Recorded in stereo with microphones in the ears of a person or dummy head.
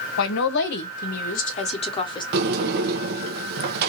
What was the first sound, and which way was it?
A woman speaking, 80° left.